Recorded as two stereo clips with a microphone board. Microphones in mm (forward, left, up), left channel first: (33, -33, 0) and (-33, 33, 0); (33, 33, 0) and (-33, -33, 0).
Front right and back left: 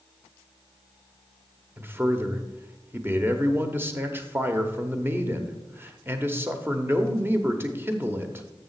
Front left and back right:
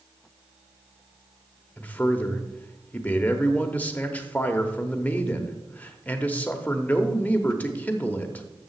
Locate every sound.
1.8 s a man speaking: 100° left, 1.0 m